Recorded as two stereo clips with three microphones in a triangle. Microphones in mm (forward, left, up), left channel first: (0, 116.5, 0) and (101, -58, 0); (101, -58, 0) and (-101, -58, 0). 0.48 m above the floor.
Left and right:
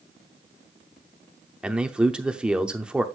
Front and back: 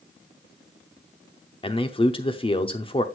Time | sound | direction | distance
1.6 | a man speaking | 20° left | 0.7 m